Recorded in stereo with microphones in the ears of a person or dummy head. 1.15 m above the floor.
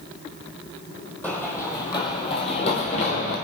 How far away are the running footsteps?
About 1.8 m.